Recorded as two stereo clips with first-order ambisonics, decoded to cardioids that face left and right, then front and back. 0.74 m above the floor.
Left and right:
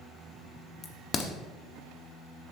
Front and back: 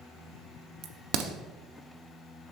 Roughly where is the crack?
Behind left.